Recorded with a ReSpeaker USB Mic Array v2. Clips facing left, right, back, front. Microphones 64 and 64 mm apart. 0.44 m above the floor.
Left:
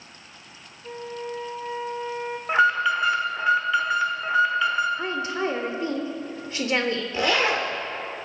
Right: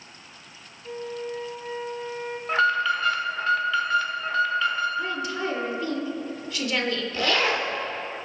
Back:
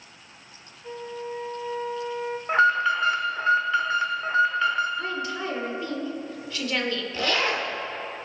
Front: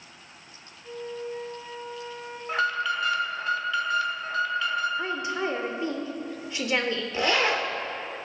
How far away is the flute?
About 1.9 m.